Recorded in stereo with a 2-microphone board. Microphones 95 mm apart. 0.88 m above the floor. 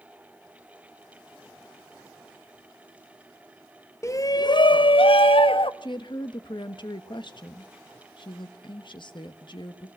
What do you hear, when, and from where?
4.0 s a shout: 30° left (ahead or behind), 0.6 m; by 5.7 s 65° left (ahead or behind), 0.9 m
5.8 s a woman speaking: 55° left (ahead or behind), 1.3 m